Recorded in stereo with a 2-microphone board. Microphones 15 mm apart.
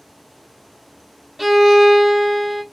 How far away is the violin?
About 0.5 m.